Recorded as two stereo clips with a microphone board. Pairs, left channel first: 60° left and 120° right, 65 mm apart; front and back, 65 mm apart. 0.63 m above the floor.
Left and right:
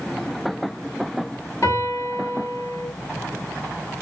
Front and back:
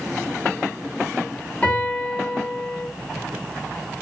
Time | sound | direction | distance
1.6 | a piano | 50° left | 1.5 m